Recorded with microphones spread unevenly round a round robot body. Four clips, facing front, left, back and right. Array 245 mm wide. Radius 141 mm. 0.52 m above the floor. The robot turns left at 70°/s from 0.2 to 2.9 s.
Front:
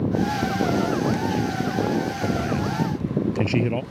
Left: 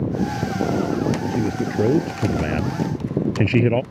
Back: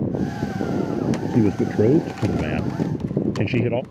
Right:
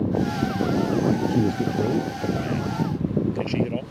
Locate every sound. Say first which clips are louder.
1.3 s a man speaking: even, back 5 dB; 165° right; by 3.8 s 85° left